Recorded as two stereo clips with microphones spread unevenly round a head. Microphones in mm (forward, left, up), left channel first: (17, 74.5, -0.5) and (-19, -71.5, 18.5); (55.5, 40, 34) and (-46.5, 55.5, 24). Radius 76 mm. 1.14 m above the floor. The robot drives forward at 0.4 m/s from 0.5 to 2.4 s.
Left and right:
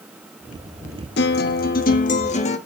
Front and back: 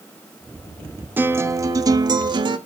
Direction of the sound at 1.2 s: 100° left.